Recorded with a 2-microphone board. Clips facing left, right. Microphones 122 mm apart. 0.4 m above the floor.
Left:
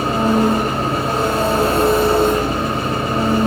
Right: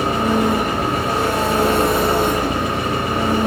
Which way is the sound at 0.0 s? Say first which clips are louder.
Left 2 dB; 30° left (ahead or behind).